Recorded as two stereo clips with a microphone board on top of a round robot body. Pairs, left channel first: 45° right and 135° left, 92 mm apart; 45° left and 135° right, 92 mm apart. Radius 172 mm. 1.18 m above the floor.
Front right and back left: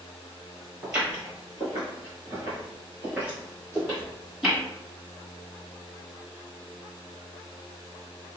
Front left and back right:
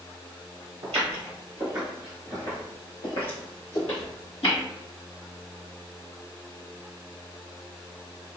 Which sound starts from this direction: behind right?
Footsteps, at 0.8 s.